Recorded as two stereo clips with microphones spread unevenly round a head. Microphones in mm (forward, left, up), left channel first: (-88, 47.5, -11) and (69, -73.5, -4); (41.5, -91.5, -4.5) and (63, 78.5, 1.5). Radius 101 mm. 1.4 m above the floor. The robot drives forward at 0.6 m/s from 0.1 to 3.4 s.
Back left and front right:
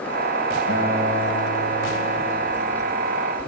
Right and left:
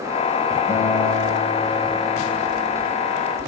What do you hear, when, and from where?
0.7 s a guitar: 160° left, 3 m; by 3.0 s 165° left, 4.5 m